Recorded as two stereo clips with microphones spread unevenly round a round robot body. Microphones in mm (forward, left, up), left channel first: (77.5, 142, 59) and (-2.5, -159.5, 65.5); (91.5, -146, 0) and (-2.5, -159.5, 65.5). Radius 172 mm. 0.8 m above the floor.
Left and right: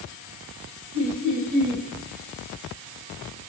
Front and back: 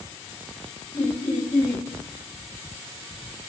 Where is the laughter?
60° right, 6 m.